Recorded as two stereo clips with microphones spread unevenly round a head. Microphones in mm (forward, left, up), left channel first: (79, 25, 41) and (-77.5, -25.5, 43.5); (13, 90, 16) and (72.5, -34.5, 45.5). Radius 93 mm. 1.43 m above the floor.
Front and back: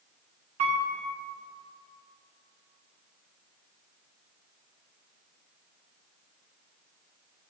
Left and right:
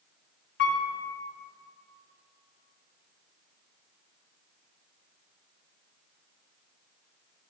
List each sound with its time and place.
0.6 s a piano: 145° left, 0.9 m